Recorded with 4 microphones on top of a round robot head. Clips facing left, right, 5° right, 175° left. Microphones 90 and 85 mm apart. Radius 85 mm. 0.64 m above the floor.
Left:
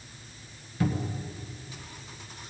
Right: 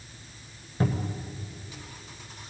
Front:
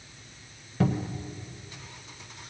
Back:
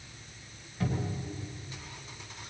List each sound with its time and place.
0.8 s a cupboard door: 25° right, 1.6 m